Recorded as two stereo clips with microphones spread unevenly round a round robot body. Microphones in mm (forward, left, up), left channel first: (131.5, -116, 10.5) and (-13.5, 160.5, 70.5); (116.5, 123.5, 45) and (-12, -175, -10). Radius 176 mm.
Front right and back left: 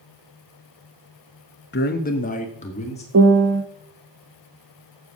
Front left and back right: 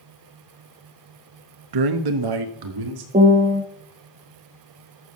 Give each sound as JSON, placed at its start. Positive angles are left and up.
{"t": 1.7, "sound": "a man speaking", "azimuth_deg": -120, "distance_m": 1.0}
{"t": 3.1, "sound": "a piano", "azimuth_deg": 180, "distance_m": 1.1}